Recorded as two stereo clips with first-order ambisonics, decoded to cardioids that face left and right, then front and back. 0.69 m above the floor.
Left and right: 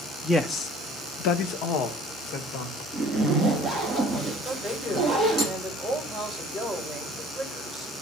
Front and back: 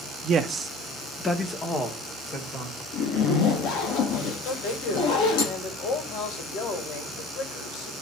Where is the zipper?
10° left, 3 m.